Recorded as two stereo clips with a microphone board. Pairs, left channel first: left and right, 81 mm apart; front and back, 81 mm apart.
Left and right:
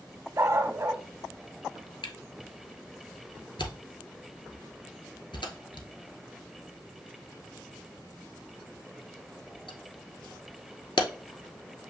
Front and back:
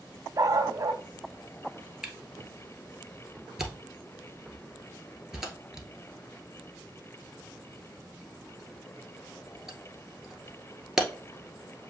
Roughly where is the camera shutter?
Left.